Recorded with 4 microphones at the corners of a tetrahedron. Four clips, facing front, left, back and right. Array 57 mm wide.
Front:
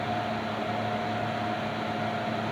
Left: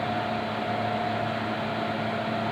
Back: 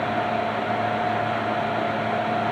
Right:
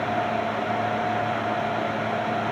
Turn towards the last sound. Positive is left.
No sound to turn to.